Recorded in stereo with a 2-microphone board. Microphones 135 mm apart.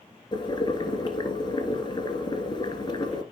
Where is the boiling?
35° left (ahead or behind), 2 m.